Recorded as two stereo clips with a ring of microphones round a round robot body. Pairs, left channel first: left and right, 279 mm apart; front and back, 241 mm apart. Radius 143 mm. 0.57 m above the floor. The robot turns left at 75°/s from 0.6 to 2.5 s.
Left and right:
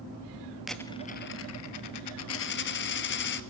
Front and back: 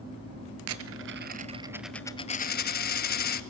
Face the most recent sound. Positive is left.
turn(degrees=45)